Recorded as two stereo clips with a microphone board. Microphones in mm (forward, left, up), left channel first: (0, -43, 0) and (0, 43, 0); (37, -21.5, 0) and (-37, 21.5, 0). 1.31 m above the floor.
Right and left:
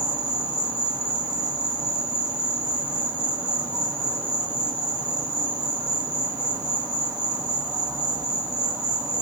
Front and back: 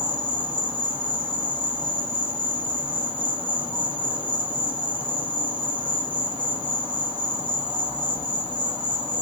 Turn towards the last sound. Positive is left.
turn(degrees=145)